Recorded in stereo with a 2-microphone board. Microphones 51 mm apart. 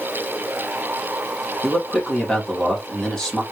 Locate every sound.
1.6 s a man speaking: 10° left (ahead or behind), 2 m